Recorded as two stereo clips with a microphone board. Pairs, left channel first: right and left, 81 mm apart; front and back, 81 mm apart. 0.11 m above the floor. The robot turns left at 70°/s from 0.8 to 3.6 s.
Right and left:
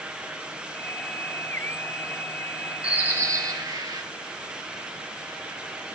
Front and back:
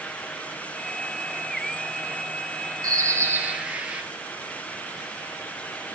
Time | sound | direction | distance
2.8 | a bird | 160° left | 2.5 m